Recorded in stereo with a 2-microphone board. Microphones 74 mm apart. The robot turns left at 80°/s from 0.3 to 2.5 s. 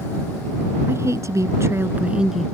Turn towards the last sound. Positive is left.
turn(degrees=175)